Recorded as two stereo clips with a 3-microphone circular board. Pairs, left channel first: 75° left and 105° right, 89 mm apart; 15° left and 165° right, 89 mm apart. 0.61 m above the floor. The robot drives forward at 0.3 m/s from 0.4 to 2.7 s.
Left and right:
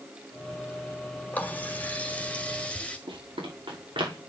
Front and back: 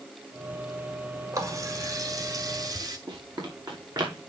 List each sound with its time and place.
1.3 s a running tap: 145° left, 1.7 m; by 3.0 s 150° left, 2 m
3.1 s running footsteps: 125° right, 5.5 m